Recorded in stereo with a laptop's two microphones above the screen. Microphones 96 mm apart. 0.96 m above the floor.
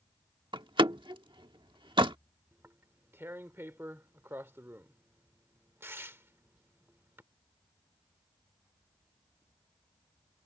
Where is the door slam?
60° right (ahead or behind).